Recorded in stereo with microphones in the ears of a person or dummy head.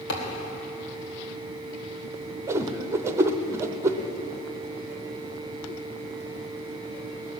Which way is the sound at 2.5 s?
15° right (ahead or behind).